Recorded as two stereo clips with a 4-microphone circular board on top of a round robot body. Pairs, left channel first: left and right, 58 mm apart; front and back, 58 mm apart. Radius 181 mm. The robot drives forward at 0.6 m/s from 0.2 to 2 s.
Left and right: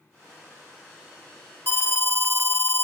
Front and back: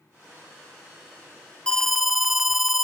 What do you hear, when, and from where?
1.7 s an alarm: 65° left, 0.7 m; by 2.8 s 100° left, 0.7 m